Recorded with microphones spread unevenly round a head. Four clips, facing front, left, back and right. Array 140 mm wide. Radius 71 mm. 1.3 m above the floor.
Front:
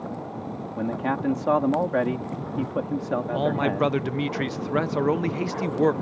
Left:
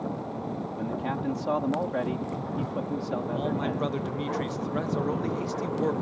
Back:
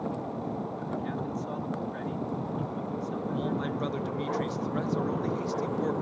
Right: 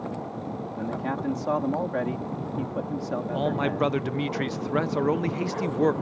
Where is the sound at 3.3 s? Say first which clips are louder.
Right 6 dB, front 9 dB; 25° right.